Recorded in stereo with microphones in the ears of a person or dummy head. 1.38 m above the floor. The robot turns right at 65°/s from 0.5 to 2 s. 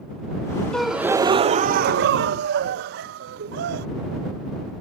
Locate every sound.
0.7 s a gasp: straight behind; by 3.9 s 100° right